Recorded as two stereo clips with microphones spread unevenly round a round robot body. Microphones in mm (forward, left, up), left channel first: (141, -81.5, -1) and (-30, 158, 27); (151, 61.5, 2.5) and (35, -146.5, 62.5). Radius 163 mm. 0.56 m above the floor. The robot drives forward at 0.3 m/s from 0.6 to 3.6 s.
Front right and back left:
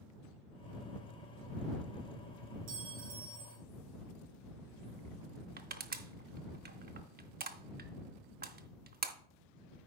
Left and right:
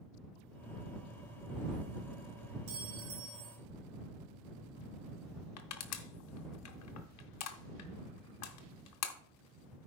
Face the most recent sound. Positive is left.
turn(degrees=65)